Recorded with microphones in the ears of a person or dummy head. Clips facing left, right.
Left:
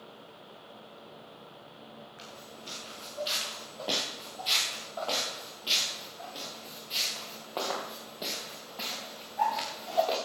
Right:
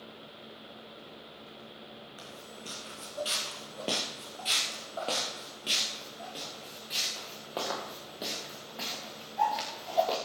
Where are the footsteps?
50° right (ahead or behind), 5 m; by 10.2 s 10° right (ahead or behind), 7 m.